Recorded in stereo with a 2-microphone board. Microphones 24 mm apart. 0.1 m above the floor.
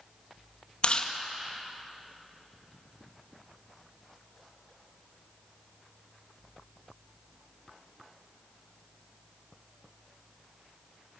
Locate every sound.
0.8 s chewing: 40° left (ahead or behind), 2 m